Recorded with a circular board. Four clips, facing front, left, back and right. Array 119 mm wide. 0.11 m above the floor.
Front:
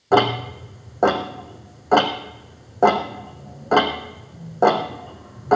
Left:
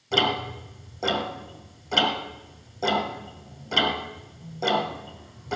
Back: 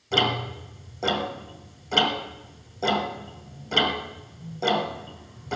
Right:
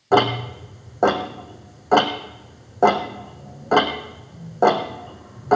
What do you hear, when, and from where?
0.1 s ticking: 45° right, 1.7 m